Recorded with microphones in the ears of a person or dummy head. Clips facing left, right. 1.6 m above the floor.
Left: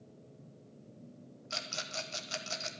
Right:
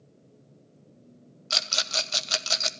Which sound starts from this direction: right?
A rattle, at 1.5 s.